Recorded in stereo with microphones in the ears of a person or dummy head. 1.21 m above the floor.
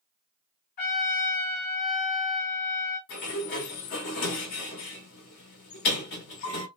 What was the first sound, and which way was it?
A trumpet, 45° left (ahead or behind).